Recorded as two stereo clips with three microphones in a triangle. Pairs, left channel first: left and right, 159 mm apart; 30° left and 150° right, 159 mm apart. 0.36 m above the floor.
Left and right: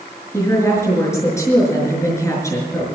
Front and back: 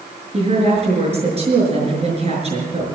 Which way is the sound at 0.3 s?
160° left.